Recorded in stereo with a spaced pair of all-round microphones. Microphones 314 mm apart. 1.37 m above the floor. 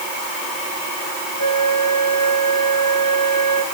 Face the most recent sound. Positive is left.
turn(degrees=65)  # may be behind; listen again after turning